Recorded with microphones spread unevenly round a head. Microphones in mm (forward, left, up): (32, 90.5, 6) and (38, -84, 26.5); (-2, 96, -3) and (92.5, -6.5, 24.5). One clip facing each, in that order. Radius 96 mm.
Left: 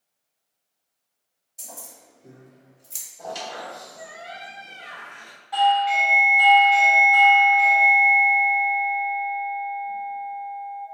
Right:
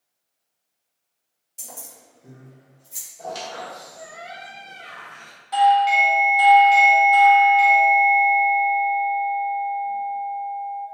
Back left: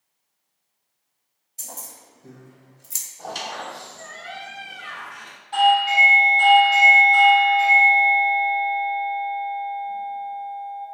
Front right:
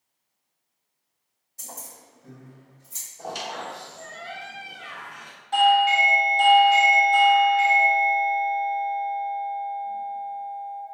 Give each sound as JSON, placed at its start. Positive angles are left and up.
{"t": 1.6, "sound": "keys jangling", "azimuth_deg": -155, "distance_m": 1.1}
{"t": 3.2, "sound": "a squeak", "azimuth_deg": -10, "distance_m": 0.7}
{"t": 5.5, "sound": "a doorbell", "azimuth_deg": -70, "distance_m": 0.8}